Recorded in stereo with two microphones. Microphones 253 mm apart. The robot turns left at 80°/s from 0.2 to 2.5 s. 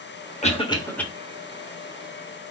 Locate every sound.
0.4 s a cough: 25° left (ahead or behind), 1.0 m; by 1.0 s 5° left (ahead or behind), 1.0 m